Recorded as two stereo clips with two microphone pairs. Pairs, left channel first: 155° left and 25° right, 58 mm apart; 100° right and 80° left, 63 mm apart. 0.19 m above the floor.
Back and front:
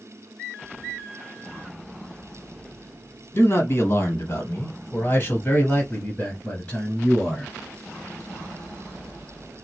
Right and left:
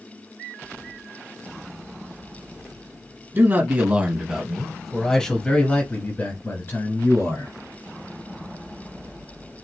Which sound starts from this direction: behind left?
A man speaking, at 3.3 s.